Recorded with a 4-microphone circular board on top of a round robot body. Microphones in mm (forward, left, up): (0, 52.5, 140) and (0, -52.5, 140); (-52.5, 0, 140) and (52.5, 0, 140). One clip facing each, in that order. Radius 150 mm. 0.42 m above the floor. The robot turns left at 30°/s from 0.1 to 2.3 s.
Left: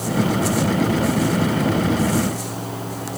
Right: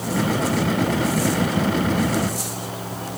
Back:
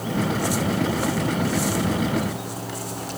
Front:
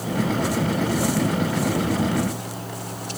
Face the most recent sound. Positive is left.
No sound to turn to.